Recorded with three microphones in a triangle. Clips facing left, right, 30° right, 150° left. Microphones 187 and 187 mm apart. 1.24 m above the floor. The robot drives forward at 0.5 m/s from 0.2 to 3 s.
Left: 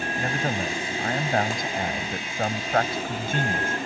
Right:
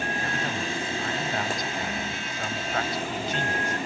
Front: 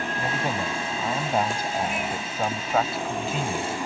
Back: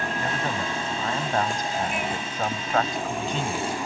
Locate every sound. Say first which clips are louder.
0.2 s a man speaking: left 3 dB, front 3 dB; 45° left; by 3.8 s 55° left